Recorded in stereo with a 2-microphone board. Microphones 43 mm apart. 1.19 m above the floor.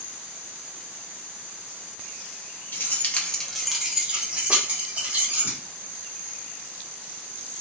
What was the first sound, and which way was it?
Keys jangling, 50° left (ahead or behind).